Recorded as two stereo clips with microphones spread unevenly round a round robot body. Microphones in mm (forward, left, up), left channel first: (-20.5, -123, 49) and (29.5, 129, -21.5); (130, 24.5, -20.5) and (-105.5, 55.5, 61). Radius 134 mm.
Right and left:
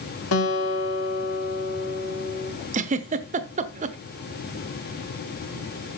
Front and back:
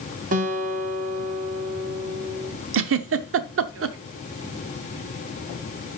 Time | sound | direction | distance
0.3 | a guitar | 130° right | 1.1 m
2.7 | a giggle | 135° left | 0.8 m